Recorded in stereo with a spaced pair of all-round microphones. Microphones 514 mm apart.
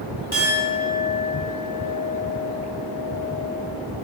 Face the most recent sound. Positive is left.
turn(degrees=-45)  # may be behind; listen again after turning